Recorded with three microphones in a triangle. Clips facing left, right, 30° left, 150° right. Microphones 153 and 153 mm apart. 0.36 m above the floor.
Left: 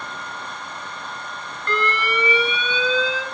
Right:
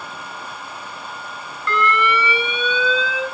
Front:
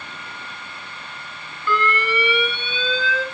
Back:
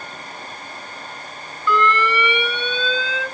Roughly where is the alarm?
Ahead left.